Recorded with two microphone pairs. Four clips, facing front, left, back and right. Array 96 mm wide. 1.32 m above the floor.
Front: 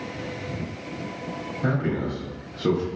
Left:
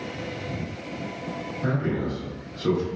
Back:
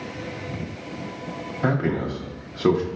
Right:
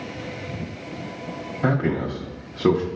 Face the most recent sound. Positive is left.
turn(degrees=-140)